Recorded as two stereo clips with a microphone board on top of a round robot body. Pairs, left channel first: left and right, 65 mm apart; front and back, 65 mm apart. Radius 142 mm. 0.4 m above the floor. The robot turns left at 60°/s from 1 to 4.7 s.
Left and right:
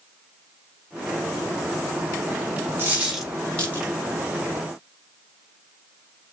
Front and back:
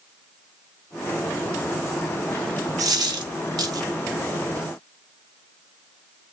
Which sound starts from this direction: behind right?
A dropped coin, at 2.8 s.